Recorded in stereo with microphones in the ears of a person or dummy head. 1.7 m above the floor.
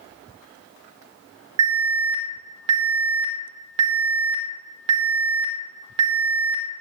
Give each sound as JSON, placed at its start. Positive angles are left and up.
{"t": 1.6, "sound": "an alarm", "side_deg": -30, "distance_m": 2.0}